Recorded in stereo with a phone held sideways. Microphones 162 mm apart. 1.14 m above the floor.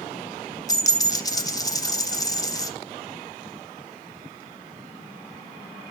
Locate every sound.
0.7 s a dropped coin: 25° left (ahead or behind), 0.8 m